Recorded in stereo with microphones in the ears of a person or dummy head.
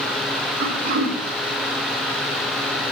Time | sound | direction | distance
0.6 | throat clearing | 50° right (ahead or behind) | 3 m